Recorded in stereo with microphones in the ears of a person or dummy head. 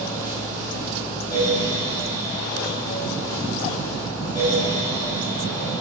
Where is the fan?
20° left (ahead or behind), 9 m.